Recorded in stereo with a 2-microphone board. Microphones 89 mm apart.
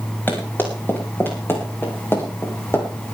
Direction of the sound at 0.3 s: 25° left (ahead or behind).